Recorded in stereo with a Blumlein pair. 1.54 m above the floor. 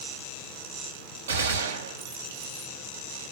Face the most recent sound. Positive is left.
turn(degrees=-60)